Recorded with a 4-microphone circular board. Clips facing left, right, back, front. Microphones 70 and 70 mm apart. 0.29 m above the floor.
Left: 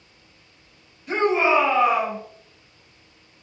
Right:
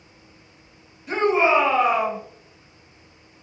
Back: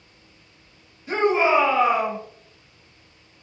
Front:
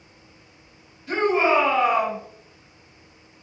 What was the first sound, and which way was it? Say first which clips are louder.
A shout: right 1 dB, back 1 dB; 175° right.